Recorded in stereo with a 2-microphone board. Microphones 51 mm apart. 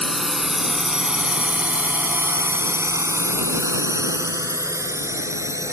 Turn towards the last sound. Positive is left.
turn(degrees=-75)  # may be behind; listen again after turning